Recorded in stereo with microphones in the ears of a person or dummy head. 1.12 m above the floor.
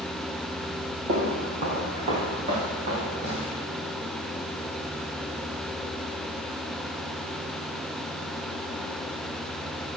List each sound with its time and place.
1.1 s footsteps: 40° right (ahead or behind), 2 m; by 3.5 s 25° right (ahead or behind), 5 m